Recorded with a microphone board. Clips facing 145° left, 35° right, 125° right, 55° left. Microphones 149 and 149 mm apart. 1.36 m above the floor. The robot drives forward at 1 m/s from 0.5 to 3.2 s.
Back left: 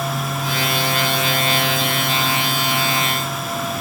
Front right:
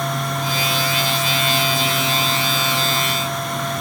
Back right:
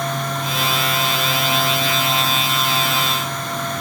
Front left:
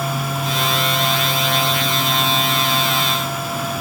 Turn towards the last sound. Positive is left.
No sound to turn to.